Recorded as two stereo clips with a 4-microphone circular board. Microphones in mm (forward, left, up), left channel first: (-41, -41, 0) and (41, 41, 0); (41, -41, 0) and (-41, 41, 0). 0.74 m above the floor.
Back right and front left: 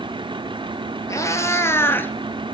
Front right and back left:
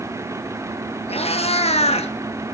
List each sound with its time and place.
1.1 s a cat meowing: 70° right, 2.5 m; by 2.1 s 60° right, 1.6 m